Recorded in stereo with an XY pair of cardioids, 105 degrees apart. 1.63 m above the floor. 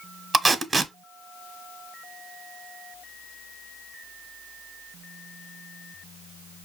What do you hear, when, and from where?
0.3 s tape being pulled: 30° right, 0.7 m